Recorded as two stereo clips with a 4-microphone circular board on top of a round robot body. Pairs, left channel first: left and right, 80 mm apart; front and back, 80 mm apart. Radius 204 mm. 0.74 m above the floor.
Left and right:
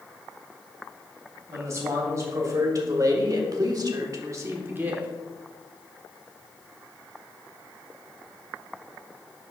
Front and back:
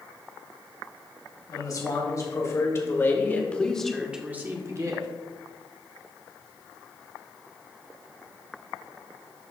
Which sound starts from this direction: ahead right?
A man speaking, at 1.5 s.